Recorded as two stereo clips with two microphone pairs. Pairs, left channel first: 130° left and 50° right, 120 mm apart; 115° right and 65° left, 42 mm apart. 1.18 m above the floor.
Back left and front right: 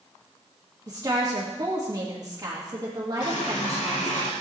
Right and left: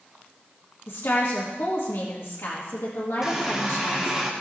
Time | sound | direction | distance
0.9 | a woman speaking | 105° right | 1.9 m
3.2 | a running tap | 140° left | 1.9 m